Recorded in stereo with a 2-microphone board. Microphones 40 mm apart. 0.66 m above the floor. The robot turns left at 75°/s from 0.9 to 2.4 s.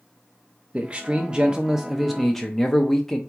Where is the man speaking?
25° right (ahead or behind), 0.5 m; by 3.2 s 10° left (ahead or behind), 0.5 m.